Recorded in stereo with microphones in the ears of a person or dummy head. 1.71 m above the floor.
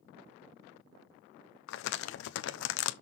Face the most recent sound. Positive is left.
turn(degrees=75)  # may be behind; listen again after turning